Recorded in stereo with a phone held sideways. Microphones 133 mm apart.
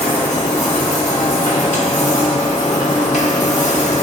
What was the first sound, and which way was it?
A machine running, 70° left (ahead or behind).